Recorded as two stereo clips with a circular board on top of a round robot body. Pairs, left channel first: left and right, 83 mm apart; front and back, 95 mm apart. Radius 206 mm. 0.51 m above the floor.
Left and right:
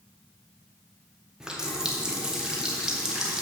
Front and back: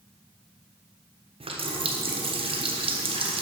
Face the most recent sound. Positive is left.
turn(degrees=-175)